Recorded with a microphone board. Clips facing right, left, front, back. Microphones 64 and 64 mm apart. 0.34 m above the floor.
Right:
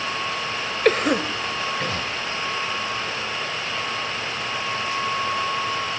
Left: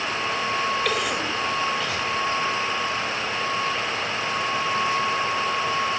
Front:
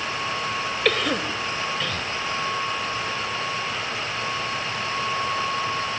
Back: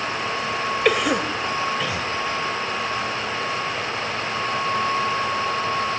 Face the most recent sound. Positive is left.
turn(degrees=-110)